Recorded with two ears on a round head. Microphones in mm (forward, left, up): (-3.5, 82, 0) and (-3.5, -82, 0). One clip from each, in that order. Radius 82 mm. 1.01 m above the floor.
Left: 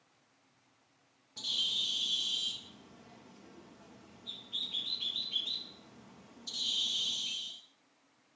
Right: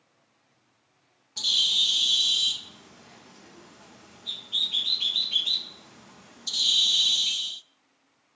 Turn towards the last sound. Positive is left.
turn(degrees=-45)  # may be behind; listen again after turning